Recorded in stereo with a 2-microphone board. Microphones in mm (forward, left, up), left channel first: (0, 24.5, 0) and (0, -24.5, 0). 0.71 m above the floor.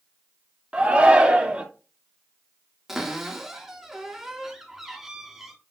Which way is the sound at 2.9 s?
10° right (ahead or behind).